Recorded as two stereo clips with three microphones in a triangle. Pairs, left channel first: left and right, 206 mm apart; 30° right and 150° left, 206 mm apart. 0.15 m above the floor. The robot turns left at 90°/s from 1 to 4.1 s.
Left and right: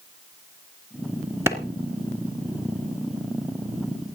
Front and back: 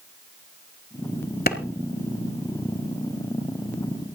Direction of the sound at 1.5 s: 15° right.